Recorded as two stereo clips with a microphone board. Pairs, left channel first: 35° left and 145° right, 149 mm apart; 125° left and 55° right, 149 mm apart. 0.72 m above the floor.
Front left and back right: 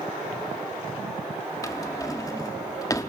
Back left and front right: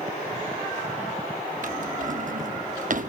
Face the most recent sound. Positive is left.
turn(degrees=-30)